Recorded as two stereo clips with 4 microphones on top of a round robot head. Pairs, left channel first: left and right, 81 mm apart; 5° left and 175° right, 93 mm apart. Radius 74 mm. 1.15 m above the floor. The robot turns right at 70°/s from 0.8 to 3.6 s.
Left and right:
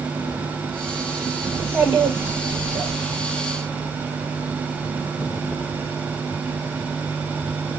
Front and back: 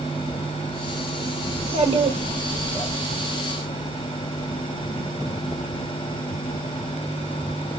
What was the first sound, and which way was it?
A child speaking, 165° left.